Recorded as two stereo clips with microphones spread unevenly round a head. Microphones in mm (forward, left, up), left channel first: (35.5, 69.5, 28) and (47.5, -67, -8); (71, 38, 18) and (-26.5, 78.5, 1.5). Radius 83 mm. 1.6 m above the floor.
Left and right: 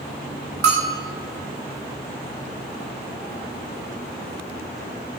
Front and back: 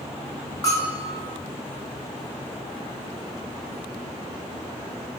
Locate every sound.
0.6 s a bell: 90° right, 1.7 m